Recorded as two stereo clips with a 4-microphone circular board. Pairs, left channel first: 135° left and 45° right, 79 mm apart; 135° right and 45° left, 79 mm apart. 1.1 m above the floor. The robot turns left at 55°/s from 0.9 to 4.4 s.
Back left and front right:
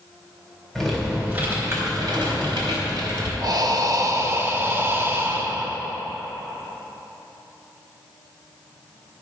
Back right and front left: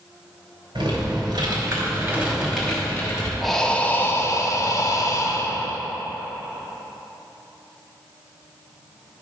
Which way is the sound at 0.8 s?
50° left.